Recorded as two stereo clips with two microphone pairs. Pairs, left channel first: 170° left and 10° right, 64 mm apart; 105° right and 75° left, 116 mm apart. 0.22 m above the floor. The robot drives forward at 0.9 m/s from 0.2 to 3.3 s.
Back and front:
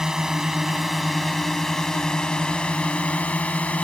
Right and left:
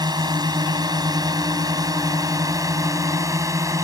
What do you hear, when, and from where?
0.0 s a drone: 70° left; by 3.9 s 115° left